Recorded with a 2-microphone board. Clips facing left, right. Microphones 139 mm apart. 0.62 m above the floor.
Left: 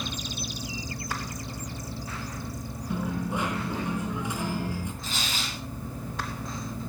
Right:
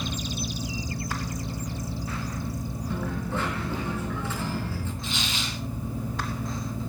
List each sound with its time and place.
2.9 s a dropped coin: 15° left (ahead or behind), 4 m
5.0 s tearing paper: 40° left (ahead or behind), 5 m